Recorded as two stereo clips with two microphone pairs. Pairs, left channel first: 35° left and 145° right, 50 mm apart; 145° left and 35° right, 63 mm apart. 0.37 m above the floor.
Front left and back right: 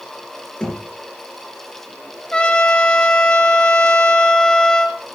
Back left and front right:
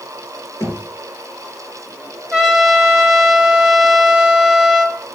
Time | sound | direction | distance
0.6 | knocking | 110° left | 3.5 m
2.3 | a trumpet | 30° left | 1.0 m